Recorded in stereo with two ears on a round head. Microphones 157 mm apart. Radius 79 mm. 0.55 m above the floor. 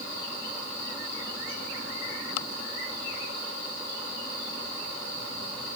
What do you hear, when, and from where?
Only background noise.